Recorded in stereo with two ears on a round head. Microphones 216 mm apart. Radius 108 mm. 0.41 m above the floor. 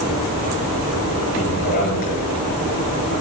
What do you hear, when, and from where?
1.3 s a man speaking: 40° left (ahead or behind), 6 m